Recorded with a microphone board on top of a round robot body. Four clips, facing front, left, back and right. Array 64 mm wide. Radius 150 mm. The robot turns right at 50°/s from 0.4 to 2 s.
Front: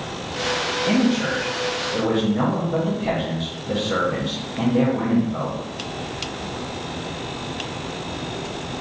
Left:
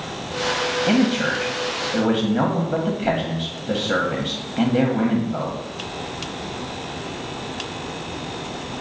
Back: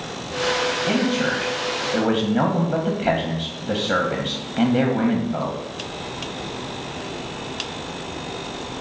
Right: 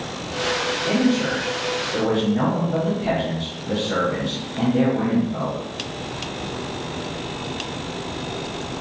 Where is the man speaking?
90° left, 1.0 m; by 5.6 s 145° left, 1.0 m.